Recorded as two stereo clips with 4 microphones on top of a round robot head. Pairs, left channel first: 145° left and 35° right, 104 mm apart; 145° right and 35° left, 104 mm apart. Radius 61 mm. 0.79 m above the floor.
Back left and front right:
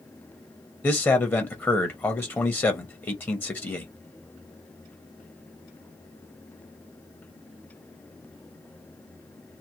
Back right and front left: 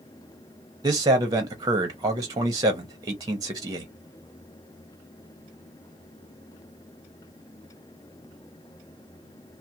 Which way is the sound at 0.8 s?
80° left.